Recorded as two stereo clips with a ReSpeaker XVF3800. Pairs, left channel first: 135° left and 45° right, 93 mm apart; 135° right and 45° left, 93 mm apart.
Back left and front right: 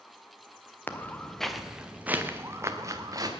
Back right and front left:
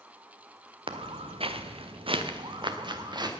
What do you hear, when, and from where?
0.9 s footsteps: 65° left, 1.5 m; by 3.3 s 5° left, 2 m